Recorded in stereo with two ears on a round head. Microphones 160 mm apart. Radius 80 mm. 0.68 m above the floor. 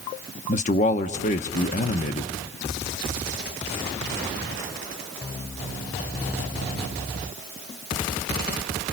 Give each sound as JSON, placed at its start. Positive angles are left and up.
{"t": 0.5, "sound": "a man speaking", "side_deg": 40, "distance_m": 1.0}